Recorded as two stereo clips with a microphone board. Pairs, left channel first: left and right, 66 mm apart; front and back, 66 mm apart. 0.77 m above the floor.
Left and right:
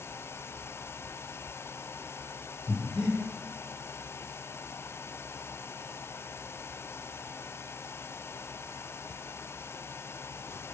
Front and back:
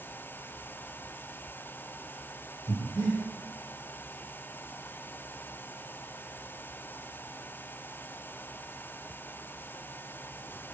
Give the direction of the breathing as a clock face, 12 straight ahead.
12 o'clock.